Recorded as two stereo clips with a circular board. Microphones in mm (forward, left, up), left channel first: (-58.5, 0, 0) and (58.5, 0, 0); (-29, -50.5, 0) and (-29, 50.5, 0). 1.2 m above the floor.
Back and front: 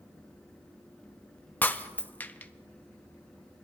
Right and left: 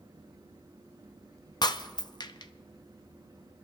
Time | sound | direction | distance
1.6 | breaking glass | 110° right | 0.6 m